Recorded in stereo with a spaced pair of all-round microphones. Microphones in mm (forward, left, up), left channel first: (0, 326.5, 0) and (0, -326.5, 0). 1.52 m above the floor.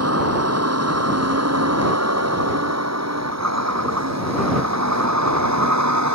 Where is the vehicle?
20° right (ahead or behind); by 6.2 s 25° right (ahead or behind).